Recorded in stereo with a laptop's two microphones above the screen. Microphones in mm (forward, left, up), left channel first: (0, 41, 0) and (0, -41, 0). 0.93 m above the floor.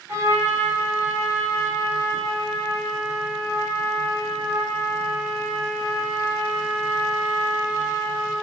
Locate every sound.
0.1 s a trumpet: 25° right (ahead or behind), 3.5 m